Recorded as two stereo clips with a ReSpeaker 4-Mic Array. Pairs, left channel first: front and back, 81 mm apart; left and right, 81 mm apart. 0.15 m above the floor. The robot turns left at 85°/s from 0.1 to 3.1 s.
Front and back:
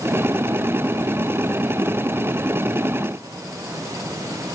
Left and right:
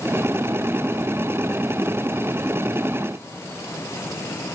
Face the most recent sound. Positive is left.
No sound to turn to.